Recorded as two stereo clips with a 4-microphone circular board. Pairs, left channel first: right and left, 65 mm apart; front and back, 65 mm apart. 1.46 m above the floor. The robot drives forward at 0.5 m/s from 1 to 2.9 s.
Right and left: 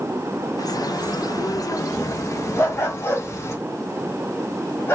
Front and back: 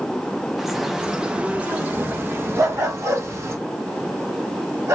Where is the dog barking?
140° right, 3 m; by 5.0 s 145° right, 3 m.